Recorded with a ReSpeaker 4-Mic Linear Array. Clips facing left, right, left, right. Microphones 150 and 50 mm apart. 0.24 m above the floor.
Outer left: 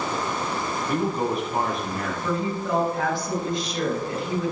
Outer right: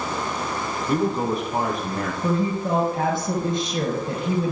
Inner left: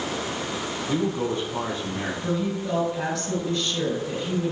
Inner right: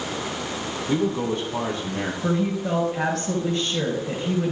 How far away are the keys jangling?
No keys jangling in this recording.